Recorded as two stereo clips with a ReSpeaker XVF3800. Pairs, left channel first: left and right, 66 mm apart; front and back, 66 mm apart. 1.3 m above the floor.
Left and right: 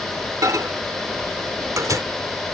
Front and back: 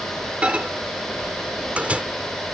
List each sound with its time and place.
0.4 s a microwave: 110° right